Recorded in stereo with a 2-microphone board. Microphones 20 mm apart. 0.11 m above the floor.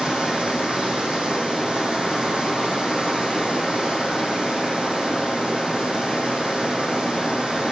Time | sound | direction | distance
0.0 | running water | 70° right (ahead or behind) | 2.5 m